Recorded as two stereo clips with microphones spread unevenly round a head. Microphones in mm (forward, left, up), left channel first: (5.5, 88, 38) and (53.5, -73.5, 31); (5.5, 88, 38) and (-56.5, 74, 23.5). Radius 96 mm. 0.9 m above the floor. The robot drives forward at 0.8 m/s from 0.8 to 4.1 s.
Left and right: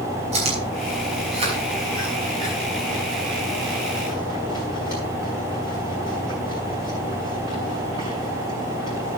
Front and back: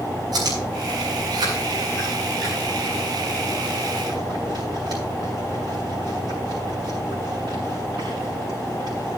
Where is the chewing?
130° right, 5.5 m; by 9.2 s 145° right, 7.5 m.